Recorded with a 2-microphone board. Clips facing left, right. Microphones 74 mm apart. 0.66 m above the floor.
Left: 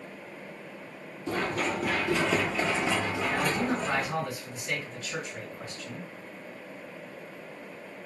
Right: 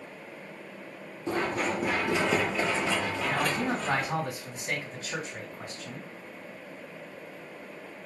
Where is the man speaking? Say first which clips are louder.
Even; 50° right (ahead or behind), 2 m.